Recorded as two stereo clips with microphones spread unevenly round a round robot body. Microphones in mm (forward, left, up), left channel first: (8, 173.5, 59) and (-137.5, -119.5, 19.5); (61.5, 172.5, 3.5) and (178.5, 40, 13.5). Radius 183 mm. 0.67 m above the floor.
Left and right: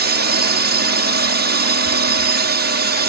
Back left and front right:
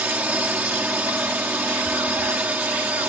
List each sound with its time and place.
0.0 s a drone: 130° right